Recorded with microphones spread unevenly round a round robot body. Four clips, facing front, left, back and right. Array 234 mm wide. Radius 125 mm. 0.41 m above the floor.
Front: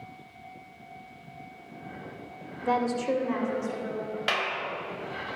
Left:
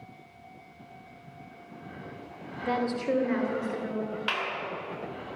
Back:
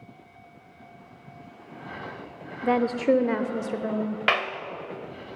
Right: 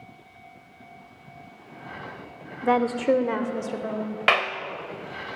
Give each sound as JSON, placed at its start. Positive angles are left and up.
{"t": 2.6, "sound": "a woman speaking", "azimuth_deg": -110, "distance_m": 1.6}
{"t": 4.3, "sound": "a clap", "azimuth_deg": -110, "distance_m": 2.0}